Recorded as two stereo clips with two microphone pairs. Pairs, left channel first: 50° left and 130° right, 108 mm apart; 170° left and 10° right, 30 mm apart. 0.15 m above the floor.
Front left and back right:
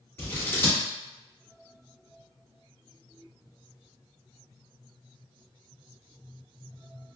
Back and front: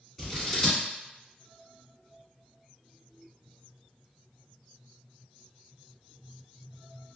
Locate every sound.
0.2 s scissors: 90° left, 1.3 m